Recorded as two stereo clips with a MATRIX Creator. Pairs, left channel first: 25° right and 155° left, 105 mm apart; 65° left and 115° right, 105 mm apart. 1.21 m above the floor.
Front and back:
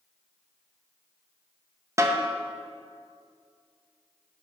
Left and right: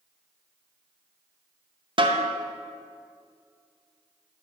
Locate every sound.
2.0 s a snare drum: 145° right, 0.6 m